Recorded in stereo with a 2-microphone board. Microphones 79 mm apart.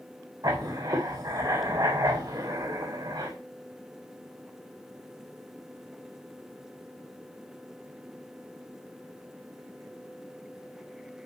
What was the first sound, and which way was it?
Writing, 55° right (ahead or behind).